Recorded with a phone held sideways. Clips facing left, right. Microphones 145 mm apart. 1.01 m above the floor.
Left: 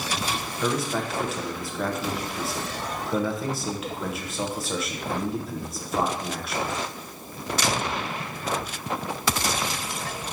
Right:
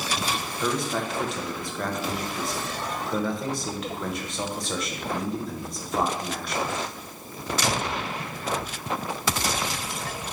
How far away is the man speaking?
About 1.1 m.